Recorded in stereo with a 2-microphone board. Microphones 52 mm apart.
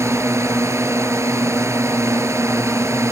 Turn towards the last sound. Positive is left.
turn(degrees=-65)  # may be behind; listen again after turning